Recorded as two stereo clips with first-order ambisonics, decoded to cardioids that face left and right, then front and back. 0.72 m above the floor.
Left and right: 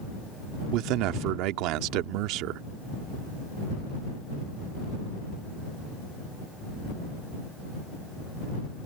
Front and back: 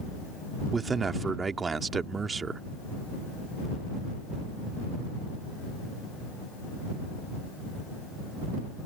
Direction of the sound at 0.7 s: 110° right.